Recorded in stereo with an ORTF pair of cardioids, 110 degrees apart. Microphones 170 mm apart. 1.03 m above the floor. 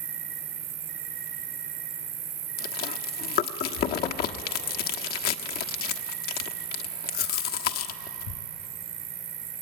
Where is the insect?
70° right, 5.5 m.